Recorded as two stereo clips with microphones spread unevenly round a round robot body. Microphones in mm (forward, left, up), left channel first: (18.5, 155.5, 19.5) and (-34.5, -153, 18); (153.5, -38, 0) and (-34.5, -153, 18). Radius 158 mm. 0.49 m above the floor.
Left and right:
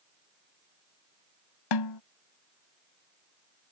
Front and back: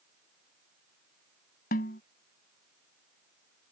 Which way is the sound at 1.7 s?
95° left.